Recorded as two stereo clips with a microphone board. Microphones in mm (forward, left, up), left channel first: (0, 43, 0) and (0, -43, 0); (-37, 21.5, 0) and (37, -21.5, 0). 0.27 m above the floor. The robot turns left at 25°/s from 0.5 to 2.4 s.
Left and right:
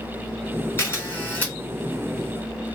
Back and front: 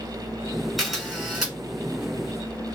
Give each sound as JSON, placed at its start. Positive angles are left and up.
{"t": 0.8, "sound": "a camera shutter", "azimuth_deg": 65, "distance_m": 1.7}